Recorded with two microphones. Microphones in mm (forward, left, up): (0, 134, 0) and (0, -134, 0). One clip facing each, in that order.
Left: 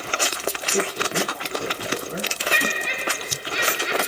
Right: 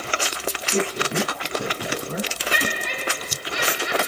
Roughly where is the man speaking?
Right.